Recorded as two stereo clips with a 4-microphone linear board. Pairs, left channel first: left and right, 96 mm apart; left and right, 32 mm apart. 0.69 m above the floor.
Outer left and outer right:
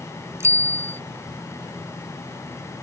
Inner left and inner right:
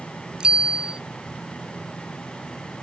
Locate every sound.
0.4 s a bicycle bell: 30° right (ahead or behind)